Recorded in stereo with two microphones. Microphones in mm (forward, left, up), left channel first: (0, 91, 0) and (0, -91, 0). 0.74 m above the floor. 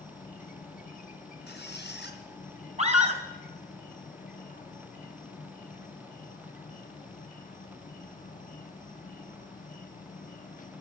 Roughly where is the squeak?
Left.